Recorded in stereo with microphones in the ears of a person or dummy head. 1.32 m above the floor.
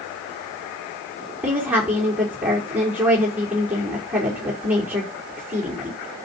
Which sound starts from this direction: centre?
A woman speaking, at 1.4 s.